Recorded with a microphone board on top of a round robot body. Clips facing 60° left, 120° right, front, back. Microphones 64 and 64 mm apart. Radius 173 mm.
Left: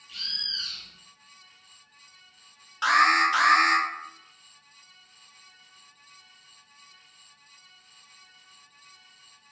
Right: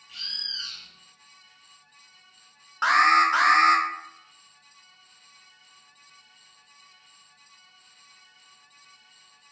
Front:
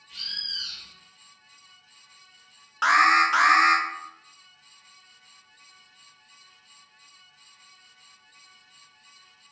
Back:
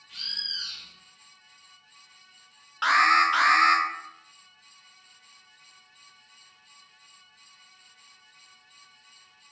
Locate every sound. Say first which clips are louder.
0.1 s a bird: left 1 dB, even; 175° left, 1.5 m
2.8 s an alarm: right 2 dB, front 1 dB; 75° right, 0.7 m